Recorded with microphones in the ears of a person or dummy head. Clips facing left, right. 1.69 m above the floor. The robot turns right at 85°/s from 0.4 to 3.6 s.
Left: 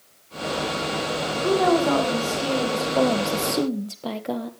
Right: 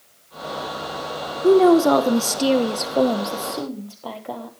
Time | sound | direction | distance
1.4 | a woman speaking | 150° right | 1.2 m